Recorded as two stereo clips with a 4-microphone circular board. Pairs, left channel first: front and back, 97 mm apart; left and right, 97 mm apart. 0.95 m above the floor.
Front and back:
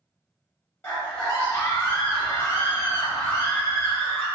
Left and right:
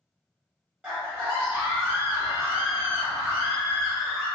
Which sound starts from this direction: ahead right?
A scream, at 0.8 s.